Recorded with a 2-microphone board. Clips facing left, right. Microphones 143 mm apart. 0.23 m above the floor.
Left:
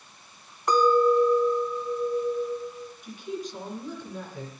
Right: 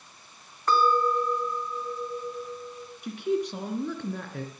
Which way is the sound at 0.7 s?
15° left (ahead or behind).